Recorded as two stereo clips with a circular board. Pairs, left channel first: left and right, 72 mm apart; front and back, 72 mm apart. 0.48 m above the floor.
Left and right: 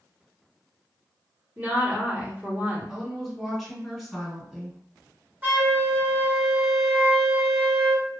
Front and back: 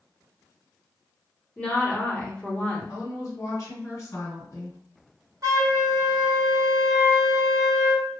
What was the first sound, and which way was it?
A woman speaking, 55° right.